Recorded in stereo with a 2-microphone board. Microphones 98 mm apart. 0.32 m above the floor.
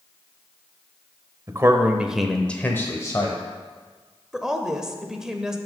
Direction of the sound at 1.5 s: 30° right (ahead or behind).